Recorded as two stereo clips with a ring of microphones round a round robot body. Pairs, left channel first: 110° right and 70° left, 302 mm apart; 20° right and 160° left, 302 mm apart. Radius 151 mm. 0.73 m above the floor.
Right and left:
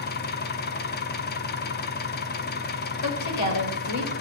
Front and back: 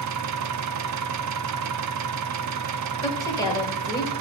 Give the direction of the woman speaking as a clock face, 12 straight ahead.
3 o'clock.